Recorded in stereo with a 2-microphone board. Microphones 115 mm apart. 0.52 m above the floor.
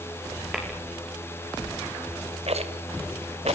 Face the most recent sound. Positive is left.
turn(degrees=-65)  # may be behind; listen again after turning